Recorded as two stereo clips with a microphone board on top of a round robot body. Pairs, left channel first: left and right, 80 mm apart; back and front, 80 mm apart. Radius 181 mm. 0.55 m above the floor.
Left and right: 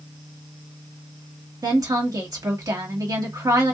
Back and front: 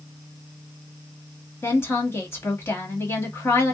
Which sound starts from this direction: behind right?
A woman speaking, at 1.6 s.